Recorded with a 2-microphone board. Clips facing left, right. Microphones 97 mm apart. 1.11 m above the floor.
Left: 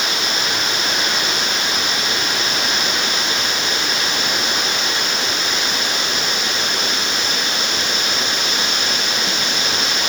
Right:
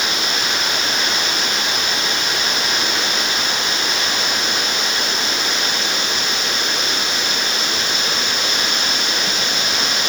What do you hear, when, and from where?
Only background noise.